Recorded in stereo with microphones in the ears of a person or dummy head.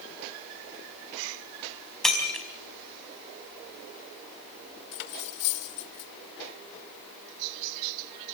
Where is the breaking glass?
Centre (ahead or behind), 4.5 m.